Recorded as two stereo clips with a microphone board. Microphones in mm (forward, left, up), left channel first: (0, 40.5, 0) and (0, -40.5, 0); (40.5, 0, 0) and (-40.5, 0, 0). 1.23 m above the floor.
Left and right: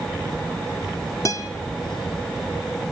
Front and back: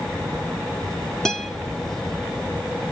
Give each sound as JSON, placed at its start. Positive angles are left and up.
{"t": 1.2, "sound": "a guitar", "azimuth_deg": 80, "distance_m": 1.0}